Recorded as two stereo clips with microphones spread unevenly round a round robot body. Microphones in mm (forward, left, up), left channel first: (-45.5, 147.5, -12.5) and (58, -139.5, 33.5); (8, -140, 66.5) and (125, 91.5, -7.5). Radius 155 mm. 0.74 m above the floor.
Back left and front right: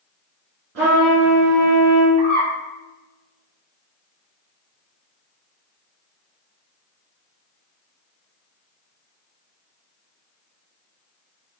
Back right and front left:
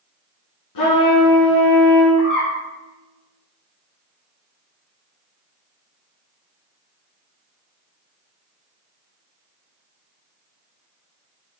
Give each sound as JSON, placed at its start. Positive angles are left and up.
{"t": 0.8, "sound": "a trumpet", "azimuth_deg": -125, "distance_m": 2.0}
{"t": 2.2, "sound": "a bird", "azimuth_deg": 170, "distance_m": 2.0}